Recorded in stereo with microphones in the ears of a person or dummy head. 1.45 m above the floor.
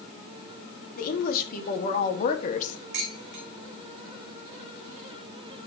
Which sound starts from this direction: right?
Dishes clattering, at 2.9 s.